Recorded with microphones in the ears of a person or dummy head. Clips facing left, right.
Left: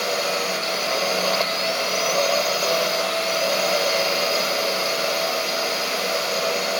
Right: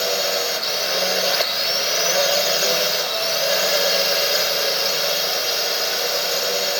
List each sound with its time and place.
0.0 s a drone: 15° right (ahead or behind)